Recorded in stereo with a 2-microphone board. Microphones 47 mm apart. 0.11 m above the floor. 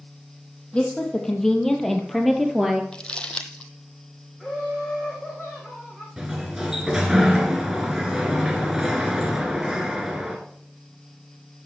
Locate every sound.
0.7 s a woman speaking: 20° left (ahead or behind), 3 m; by 2.8 s 10° right (ahead or behind), 1.9 m
2.9 s crumpling: 20° left (ahead or behind), 0.9 m
4.4 s laughter: 5° right (ahead or behind), 5.5 m
6.2 s a sliding door: 10° right (ahead or behind), 1.8 m